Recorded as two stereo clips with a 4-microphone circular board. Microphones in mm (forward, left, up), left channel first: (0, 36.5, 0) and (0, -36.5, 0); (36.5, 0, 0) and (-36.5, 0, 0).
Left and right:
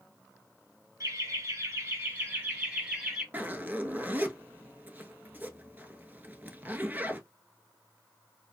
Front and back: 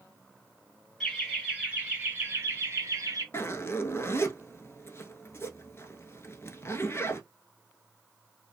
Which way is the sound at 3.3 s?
35° right.